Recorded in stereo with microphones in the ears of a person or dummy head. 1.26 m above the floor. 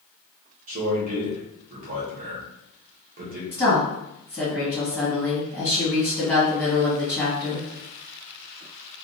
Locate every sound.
0.7 s a man speaking: 45° right (ahead or behind), 1.0 m
3.5 s a woman speaking: 5° right (ahead or behind), 1.4 m